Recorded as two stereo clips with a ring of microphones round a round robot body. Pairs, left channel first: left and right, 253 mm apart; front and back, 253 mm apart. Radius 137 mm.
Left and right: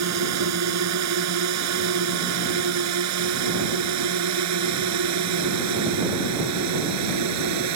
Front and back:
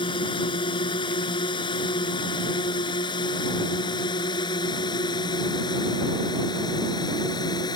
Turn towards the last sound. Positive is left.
turn(degrees=-75)